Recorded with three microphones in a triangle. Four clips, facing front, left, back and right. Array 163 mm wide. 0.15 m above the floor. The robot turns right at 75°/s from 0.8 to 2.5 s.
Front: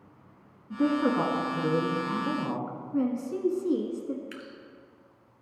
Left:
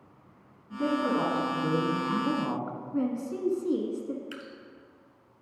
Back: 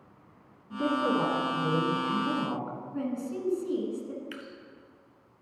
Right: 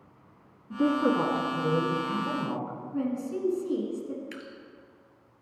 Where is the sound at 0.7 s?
45° right, 1.3 m; by 2.8 s 85° left, 1.3 m.